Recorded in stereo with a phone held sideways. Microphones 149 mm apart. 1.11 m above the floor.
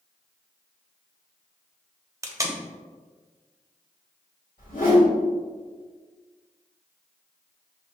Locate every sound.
2.2 s tape being pulled: 20° right (ahead or behind), 0.6 m
4.6 s a whoosh: 75° left (ahead or behind), 1.6 m